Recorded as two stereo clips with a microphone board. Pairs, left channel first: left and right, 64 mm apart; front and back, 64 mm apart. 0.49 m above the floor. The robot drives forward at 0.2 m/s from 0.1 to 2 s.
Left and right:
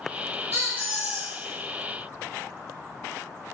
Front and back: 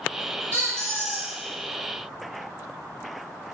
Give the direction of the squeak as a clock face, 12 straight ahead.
5 o'clock.